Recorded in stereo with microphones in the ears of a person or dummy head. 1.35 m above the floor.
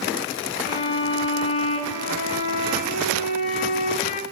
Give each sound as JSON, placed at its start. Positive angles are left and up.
{"t": 0.7, "sound": "a violin", "side_deg": 40, "distance_m": 1.9}